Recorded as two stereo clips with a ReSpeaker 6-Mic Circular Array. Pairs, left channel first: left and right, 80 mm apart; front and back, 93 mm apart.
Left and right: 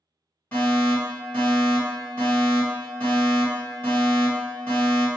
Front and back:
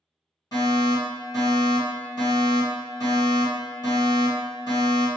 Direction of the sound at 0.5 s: 30° left.